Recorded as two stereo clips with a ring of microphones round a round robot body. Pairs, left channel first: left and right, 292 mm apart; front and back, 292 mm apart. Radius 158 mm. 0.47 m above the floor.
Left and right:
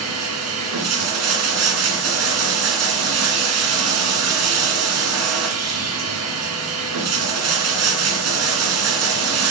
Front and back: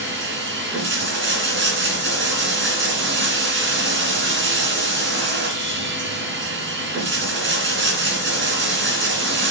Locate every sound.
0.0 s running water: 130° right, 1.9 m